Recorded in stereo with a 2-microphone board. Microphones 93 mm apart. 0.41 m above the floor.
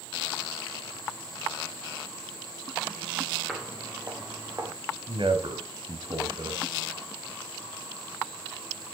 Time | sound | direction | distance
3.5 | footsteps | centre (ahead or behind) | 3 m
5.1 | a man speaking | 65° right (ahead or behind) | 2 m